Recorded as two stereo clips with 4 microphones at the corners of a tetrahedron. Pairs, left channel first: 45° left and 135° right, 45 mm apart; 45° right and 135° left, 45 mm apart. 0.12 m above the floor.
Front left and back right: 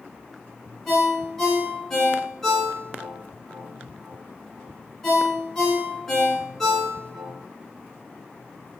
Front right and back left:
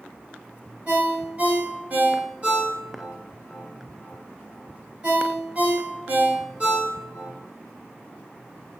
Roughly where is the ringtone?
Behind left.